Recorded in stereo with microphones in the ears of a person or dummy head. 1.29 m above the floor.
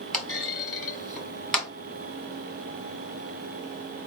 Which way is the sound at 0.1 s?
Centre (ahead or behind).